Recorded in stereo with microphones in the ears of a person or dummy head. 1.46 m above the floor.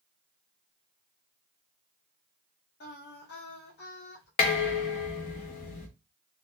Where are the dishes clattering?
35° left (ahead or behind), 0.5 m.